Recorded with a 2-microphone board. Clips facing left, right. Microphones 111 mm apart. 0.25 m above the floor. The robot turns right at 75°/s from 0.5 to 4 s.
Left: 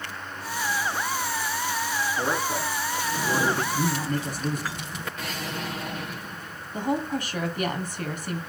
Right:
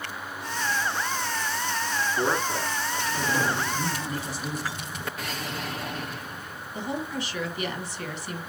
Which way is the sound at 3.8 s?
55° left (ahead or behind).